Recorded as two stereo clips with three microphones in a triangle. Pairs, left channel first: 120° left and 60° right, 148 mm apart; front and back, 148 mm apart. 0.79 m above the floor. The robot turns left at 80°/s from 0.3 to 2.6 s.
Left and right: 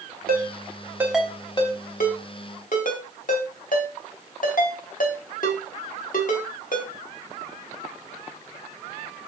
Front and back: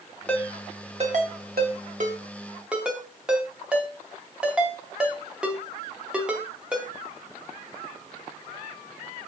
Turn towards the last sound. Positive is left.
turn(degrees=95)